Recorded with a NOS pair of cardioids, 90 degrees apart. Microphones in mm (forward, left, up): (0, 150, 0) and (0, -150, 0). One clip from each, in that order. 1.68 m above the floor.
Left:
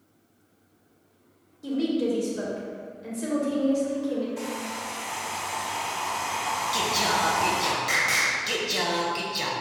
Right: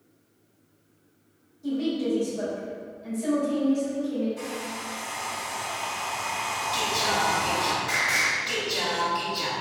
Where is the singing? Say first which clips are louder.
Even; 45° left, 1.0 m.